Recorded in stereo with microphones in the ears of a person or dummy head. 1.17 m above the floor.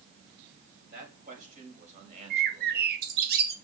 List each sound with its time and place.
0.9 s a man speaking: 55° right (ahead or behind), 5.5 m; by 2.9 s 40° right (ahead or behind), 5 m
2.3 s a bird: 60° right (ahead or behind), 1.4 m